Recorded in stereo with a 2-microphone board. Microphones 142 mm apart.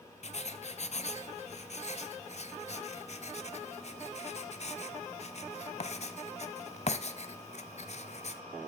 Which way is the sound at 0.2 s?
50° left (ahead or behind).